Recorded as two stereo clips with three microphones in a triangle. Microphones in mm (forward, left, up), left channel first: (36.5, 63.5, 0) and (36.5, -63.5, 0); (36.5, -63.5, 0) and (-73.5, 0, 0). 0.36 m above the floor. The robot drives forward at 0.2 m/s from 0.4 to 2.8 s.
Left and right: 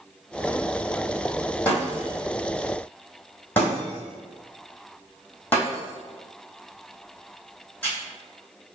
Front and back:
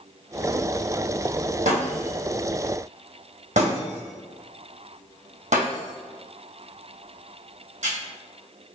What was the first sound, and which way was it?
Breaking glass, 165° left.